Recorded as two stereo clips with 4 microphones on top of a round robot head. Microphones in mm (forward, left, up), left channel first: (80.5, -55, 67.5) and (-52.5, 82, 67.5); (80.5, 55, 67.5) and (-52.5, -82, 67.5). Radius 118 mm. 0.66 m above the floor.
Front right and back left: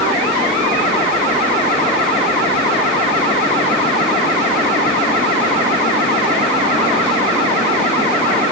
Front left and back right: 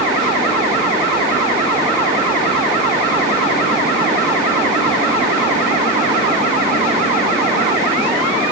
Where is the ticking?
No ticking in this recording.